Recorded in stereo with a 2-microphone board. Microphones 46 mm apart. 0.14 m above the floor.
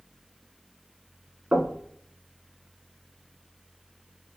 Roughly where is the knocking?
Right.